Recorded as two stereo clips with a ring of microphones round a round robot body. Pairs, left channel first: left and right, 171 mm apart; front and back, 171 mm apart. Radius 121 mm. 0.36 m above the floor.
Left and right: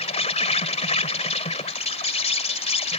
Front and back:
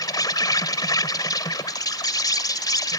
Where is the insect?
60° left.